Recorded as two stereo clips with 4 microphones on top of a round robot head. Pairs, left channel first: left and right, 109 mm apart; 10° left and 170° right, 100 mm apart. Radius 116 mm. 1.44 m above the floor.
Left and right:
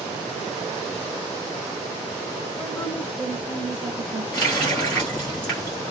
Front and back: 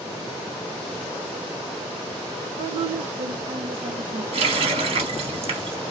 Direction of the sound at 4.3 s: 170° left.